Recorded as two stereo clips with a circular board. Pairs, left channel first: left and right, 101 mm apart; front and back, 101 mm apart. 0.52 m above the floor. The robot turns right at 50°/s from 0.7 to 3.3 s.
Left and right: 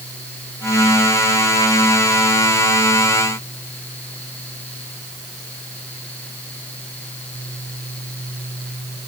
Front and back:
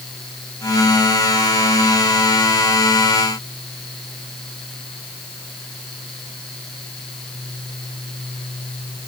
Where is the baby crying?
I don't hear a baby crying.